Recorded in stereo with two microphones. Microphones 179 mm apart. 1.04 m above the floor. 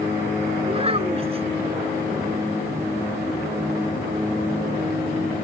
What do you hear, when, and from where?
0.7 s a child speaking: 30° right (ahead or behind)